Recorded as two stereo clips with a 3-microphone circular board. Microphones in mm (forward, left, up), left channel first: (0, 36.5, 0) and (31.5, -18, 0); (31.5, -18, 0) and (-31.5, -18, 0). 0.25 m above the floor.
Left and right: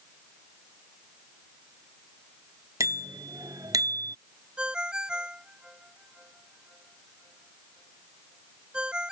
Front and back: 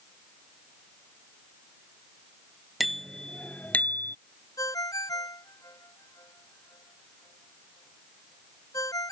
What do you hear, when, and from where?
2.8 s a bicycle bell: 90° right; by 4.2 s 50° right
4.6 s a ringtone: 15° left